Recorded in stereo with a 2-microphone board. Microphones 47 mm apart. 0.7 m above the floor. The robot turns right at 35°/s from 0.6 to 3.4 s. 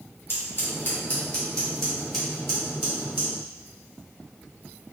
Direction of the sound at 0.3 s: 50° left (ahead or behind).